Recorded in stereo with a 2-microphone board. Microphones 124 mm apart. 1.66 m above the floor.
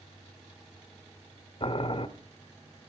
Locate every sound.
1.6 s boiling: 45° left (ahead or behind), 1.9 m